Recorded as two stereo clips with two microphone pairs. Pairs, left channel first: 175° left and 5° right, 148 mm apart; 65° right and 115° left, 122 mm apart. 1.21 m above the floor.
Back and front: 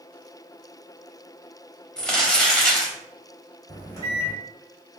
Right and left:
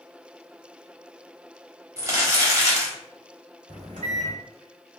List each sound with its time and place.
2.0 s crumpling: 100° left, 1.0 m
3.7 s a microwave: 110° left, 2.0 m